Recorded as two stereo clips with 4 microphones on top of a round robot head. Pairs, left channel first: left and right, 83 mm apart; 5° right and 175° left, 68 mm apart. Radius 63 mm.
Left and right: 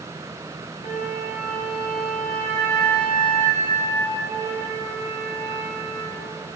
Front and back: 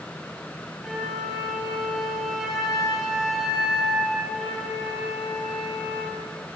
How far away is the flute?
About 4 m.